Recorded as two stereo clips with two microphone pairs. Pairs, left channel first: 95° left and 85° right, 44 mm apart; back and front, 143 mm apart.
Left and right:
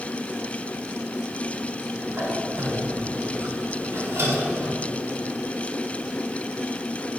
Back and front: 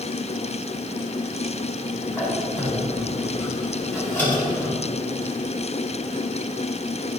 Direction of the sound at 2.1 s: 100° right.